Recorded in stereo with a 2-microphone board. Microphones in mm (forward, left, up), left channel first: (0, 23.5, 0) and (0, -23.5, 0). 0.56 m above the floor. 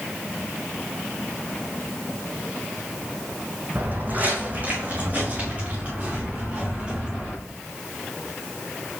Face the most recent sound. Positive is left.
turn(degrees=-20)  # may be behind; listen again after turning